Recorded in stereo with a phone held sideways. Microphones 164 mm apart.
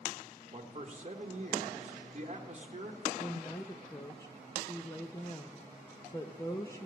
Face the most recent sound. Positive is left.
turn(degrees=20)  # may be behind; listen again after turning